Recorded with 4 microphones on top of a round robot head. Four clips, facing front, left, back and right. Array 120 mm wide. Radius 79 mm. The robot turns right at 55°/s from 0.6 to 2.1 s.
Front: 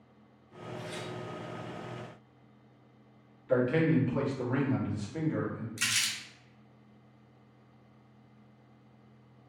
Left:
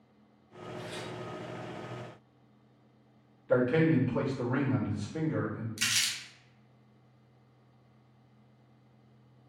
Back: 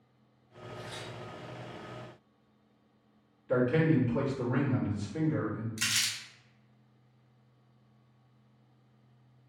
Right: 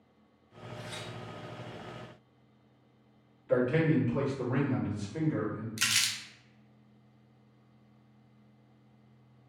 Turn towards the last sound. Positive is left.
turn(degrees=-95)